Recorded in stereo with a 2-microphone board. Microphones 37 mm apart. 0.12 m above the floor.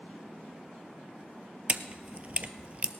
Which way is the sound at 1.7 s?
35° right (ahead or behind).